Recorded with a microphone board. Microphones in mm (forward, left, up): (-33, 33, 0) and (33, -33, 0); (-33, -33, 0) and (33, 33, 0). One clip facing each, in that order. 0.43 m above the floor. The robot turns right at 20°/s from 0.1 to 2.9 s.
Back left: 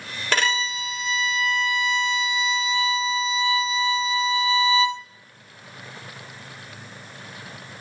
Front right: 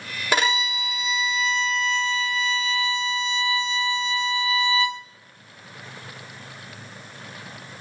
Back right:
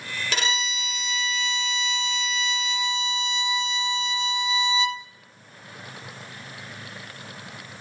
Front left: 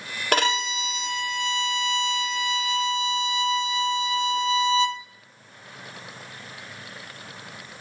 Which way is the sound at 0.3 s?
30° left.